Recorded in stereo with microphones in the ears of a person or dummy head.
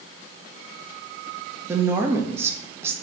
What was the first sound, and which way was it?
A woman speaking, 10° right (ahead or behind).